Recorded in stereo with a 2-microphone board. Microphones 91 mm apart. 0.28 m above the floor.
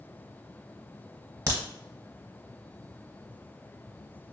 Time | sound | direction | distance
1.5 | a crack | 35° right (ahead or behind) | 0.9 m